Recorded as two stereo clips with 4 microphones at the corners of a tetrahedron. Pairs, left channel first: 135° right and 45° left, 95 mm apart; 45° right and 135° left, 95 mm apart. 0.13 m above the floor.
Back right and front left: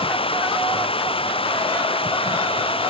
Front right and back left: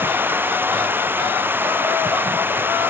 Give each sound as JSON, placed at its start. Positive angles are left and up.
{"t": 0.0, "sound": "running water", "azimuth_deg": -155}